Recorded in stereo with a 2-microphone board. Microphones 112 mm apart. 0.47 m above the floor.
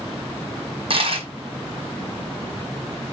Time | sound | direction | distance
0.9 | a dropped coin | 55° right (ahead or behind) | 1.3 m